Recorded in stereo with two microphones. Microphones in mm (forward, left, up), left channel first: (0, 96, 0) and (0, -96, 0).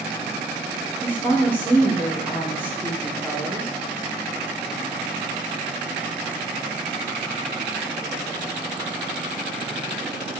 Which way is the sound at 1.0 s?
10° left (ahead or behind).